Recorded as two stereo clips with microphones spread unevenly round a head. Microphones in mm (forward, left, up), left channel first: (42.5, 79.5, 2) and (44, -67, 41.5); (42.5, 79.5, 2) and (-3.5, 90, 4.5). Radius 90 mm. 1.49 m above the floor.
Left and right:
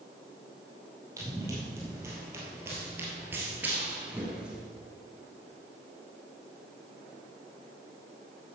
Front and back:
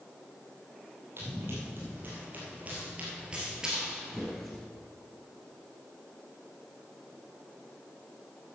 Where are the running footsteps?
150° right, 2.5 m; by 4.6 s 85° right, 1.5 m.